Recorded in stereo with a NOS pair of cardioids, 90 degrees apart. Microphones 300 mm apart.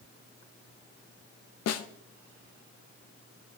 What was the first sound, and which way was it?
A snare drum, 60° left.